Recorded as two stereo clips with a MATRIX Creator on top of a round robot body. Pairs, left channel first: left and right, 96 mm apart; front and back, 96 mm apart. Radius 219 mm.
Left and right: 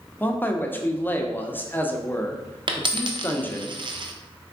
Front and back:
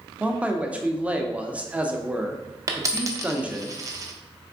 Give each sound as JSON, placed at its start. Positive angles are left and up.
{"t": 0.2, "sound": "a man speaking", "azimuth_deg": 125, "distance_m": 0.9}
{"t": 2.7, "sound": "a dropped coin", "azimuth_deg": -125, "distance_m": 0.7}